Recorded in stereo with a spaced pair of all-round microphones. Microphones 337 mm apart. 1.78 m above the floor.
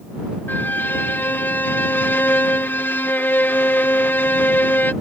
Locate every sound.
0.5 s a violin: 5° left (ahead or behind)